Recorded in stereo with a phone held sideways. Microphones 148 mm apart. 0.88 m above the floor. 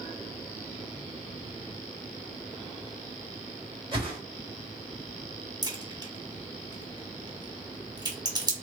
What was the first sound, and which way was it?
A whoosh, 35° right (ahead or behind).